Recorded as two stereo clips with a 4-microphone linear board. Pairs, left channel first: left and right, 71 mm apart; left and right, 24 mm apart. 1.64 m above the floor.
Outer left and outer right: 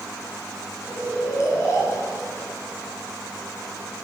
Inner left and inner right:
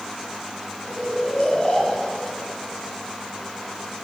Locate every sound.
0.8 s snoring: 40° left (ahead or behind), 2 m